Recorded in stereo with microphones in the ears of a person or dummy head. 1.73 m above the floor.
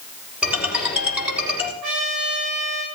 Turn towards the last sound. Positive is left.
turn(degrees=-65)  # may be behind; listen again after turning